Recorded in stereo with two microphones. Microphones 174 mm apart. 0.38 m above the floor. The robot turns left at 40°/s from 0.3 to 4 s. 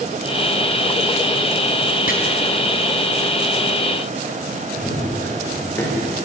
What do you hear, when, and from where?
2.1 s chopping: 60° left (ahead or behind), 4 m
4.8 s running footsteps: 10° left (ahead or behind), 9.5 m; by 6.1 s 15° left (ahead or behind), 8.5 m